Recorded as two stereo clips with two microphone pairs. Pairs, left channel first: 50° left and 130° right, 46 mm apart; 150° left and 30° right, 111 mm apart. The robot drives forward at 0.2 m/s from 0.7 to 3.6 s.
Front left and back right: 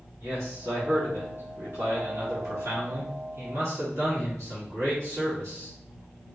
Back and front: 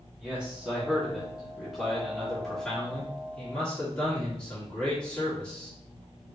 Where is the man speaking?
110° right, 1.4 m; by 5.7 s 130° right, 1.7 m.